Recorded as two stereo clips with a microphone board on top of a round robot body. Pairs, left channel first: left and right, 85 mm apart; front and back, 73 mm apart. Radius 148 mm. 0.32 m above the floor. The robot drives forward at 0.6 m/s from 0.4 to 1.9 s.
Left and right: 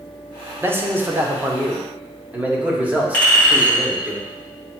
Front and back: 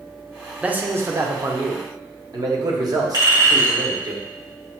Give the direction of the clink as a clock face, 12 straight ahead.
7 o'clock.